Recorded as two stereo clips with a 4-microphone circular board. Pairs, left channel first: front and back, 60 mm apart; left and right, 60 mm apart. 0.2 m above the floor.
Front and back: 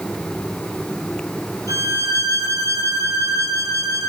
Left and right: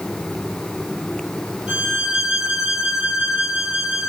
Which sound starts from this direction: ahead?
A violin, at 1.7 s.